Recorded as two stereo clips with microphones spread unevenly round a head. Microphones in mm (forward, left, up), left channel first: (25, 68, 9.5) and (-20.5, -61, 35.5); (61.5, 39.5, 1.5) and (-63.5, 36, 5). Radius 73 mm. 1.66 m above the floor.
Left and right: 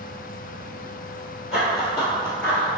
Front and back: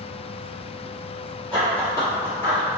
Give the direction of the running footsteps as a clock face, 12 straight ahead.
2 o'clock.